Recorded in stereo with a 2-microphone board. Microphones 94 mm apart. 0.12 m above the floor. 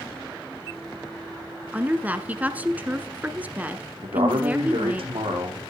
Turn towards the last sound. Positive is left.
turn(degrees=-70)  # may be behind; listen again after turning